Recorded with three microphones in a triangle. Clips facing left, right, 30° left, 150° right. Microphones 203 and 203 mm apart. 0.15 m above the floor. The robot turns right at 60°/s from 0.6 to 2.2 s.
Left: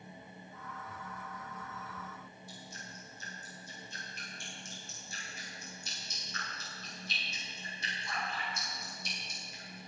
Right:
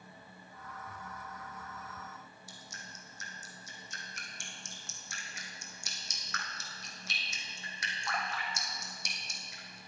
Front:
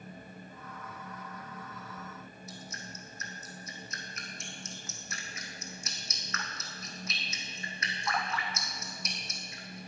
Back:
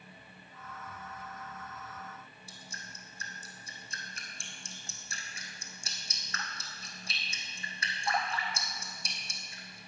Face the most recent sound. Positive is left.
turn(degrees=-90)